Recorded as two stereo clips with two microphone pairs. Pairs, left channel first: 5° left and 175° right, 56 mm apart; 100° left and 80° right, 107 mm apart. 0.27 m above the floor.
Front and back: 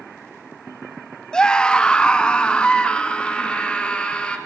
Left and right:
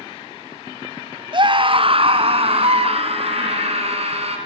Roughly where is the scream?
Ahead right.